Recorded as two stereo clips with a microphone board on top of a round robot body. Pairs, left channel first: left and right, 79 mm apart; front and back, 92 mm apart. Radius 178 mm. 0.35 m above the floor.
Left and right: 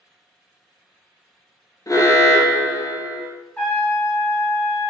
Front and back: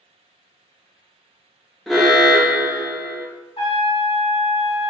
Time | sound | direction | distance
1.9 | an alarm | 90° left | 0.8 m
3.6 | a trumpet | 15° left | 0.9 m